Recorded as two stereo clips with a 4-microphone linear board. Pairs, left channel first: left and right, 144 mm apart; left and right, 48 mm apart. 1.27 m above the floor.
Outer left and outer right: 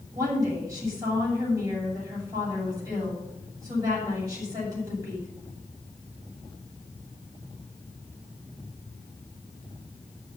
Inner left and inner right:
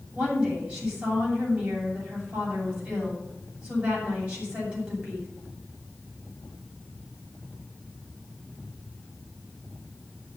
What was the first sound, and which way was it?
A woman speaking, 25° right (ahead or behind).